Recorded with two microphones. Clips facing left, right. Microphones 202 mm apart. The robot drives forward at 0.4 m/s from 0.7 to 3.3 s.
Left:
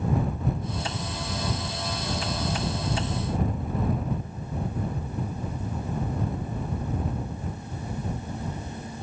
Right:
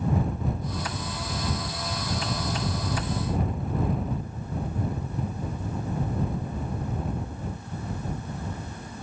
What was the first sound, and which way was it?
Only background noise.